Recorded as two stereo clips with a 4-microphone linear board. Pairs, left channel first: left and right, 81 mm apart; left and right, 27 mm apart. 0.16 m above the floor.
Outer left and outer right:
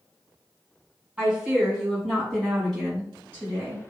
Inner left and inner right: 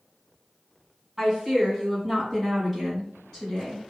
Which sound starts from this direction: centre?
A woman speaking, at 1.2 s.